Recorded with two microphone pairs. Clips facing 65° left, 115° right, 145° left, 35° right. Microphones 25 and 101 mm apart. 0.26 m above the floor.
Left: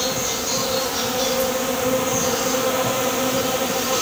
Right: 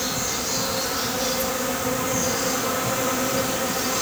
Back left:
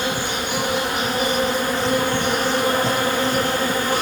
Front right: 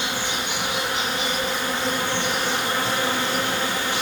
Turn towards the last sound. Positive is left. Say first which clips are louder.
# left 3 dB, back left 4 dB
turn(degrees=100)